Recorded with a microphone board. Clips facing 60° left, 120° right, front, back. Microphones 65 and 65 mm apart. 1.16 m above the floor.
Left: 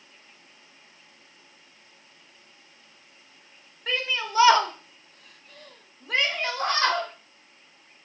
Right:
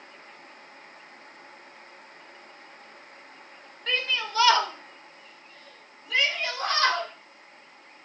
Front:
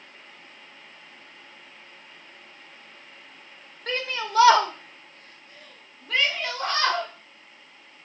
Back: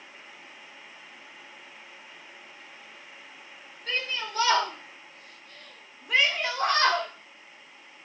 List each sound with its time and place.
3.9 s a shout: 20° right, 2 m; by 7.1 s 120° left, 2.5 m